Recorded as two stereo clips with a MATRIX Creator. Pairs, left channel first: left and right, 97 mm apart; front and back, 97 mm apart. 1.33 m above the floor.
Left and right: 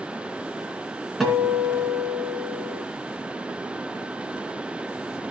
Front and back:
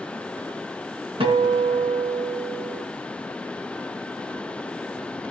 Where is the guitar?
Straight behind, 2.5 m.